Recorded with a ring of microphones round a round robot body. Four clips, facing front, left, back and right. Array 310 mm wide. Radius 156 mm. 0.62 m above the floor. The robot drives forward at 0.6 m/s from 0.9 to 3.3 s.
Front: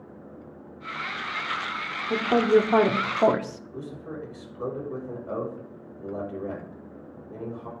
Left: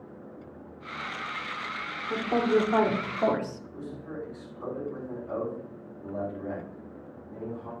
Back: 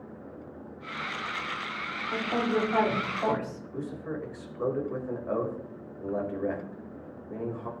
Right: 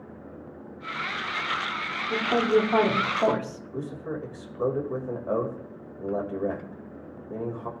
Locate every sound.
2.1 s a woman speaking: 5° right, 1.8 m
3.7 s a man speaking: 105° right, 2.5 m